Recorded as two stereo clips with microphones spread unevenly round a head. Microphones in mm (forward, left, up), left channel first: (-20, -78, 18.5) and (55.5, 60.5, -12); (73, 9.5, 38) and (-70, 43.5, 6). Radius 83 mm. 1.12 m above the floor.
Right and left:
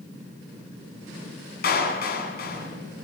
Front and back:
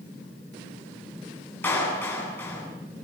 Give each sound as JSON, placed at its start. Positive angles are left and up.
{"t": 1.6, "sound": "a clap", "azimuth_deg": -90, "distance_m": 8.0}